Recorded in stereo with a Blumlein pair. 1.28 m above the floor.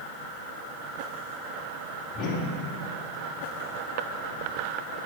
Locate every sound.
2.1 s a whoosh: 25° left, 1.9 m